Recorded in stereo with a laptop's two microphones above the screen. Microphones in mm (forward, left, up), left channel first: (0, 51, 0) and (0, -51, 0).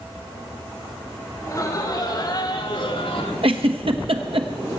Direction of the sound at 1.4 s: 30° left (ahead or behind).